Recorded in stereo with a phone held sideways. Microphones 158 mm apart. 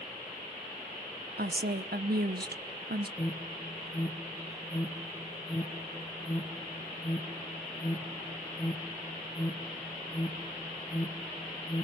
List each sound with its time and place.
1.4 s a woman speaking: 85° right, 0.8 m
3.2 s an alarm: 20° left (ahead or behind), 2 m